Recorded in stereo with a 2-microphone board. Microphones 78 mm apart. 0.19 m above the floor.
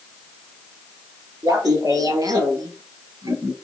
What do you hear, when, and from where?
1.4 s laughter: 50° right (ahead or behind), 4 m; by 3.5 s 60° right (ahead or behind), 3 m